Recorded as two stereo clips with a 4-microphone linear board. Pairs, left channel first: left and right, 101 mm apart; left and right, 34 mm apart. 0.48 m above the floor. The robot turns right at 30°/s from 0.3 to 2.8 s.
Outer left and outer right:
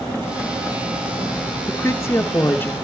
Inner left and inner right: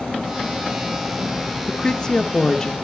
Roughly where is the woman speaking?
Left.